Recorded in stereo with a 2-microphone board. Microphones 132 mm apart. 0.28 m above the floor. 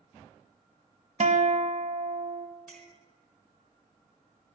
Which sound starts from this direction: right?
A guitar, at 1.2 s.